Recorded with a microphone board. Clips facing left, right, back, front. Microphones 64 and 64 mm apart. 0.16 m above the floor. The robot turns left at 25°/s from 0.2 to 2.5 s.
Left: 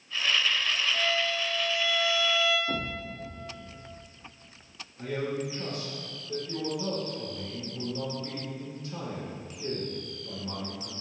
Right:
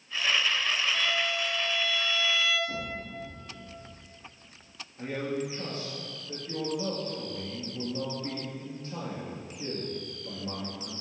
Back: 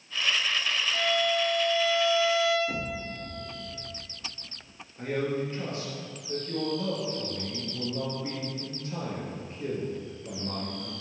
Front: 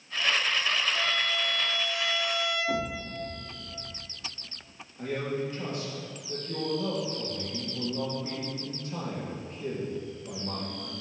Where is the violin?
160° right, 3 m; by 2.6 s 160° left, 3 m.